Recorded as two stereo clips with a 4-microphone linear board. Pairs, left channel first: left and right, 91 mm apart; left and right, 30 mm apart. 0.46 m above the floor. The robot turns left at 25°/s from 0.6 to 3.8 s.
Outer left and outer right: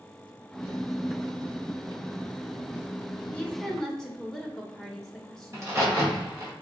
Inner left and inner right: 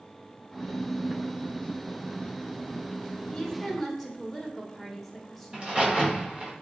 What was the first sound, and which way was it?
A woman speaking, 15° left (ahead or behind).